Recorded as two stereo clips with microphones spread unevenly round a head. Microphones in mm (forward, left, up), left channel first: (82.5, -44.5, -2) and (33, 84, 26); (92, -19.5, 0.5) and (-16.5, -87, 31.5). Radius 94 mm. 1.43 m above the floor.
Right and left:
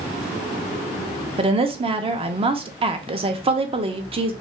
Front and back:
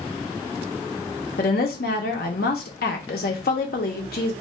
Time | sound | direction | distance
1.4 | a woman speaking | 70° left | 0.5 m